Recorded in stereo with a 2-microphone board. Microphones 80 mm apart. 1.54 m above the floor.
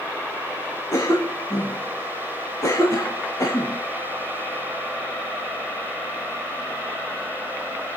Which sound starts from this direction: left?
A cough, at 0.9 s.